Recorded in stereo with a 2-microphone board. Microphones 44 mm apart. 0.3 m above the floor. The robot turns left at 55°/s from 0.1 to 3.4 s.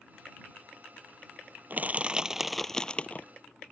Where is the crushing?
135° right; by 3.3 s 140° left.